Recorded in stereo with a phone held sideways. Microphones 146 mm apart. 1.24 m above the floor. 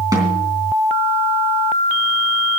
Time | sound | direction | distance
0.1 | a snare drum | 25° right (ahead or behind) | 3.5 m